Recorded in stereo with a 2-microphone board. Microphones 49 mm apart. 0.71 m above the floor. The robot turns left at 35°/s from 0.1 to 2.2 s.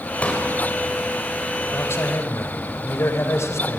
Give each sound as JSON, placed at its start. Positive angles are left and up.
{"t": 0.2, "sound": "a pop", "side_deg": 30, "distance_m": 4.0}
{"t": 1.7, "sound": "a man speaking", "side_deg": 55, "distance_m": 3.0}